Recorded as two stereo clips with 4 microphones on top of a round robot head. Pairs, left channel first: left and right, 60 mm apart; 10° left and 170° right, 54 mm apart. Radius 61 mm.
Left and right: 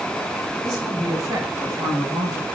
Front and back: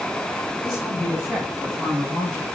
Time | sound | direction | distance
0.6 | a woman speaking | 85° right | 7.5 m